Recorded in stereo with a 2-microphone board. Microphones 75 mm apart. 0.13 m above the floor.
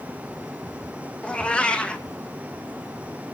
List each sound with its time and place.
1.2 s a cat meowing: 15° left (ahead or behind), 1.2 m